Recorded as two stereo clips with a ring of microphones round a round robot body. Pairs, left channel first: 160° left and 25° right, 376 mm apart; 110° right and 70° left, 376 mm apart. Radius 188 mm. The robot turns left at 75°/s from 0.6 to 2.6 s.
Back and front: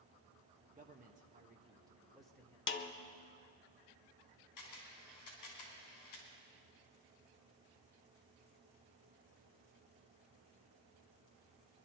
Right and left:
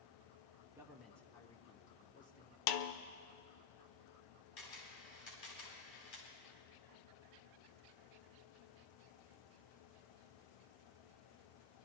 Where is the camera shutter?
165° right, 4 m.